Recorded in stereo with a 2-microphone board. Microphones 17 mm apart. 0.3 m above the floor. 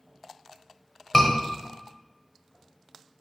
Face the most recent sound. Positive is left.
turn(degrees=10)  # may be behind; listen again after turning